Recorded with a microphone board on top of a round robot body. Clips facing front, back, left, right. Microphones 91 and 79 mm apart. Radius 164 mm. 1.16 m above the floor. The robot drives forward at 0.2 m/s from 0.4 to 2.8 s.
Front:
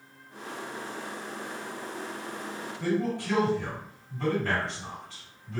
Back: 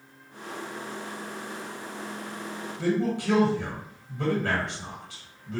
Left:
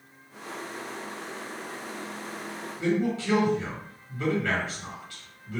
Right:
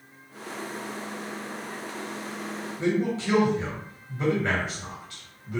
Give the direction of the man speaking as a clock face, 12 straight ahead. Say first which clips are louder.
Back 2 dB, even; 5 o'clock.